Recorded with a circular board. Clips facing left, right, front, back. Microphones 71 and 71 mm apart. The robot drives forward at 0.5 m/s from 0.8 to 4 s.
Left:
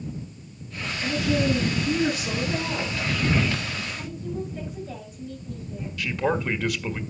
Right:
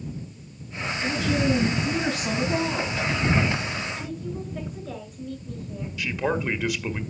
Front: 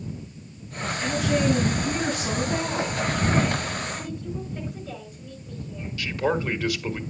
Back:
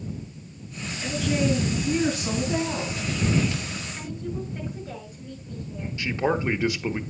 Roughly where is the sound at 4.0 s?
Right.